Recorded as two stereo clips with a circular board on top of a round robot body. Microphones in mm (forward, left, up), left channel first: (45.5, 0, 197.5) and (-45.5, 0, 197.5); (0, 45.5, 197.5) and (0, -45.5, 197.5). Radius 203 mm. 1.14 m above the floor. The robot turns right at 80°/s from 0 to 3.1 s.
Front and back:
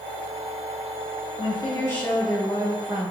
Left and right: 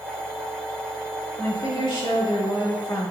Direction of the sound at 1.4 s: 20° left.